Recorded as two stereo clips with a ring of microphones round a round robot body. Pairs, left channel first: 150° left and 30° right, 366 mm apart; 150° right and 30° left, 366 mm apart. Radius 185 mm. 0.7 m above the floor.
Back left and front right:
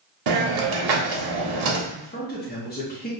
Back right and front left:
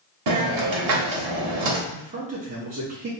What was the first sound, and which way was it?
A hiss, 10° right.